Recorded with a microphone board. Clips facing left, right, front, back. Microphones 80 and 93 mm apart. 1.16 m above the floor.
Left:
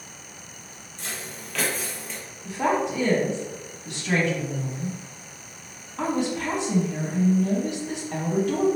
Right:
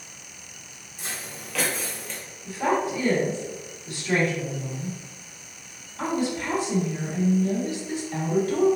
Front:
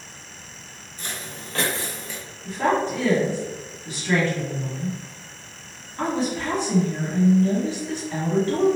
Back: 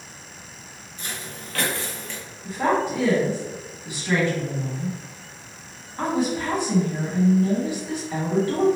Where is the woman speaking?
105° left, 1.7 m.